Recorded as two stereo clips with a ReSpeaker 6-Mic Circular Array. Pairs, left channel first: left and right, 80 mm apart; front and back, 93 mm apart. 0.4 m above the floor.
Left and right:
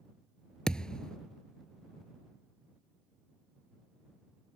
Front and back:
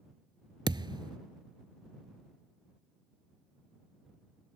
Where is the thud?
165° left.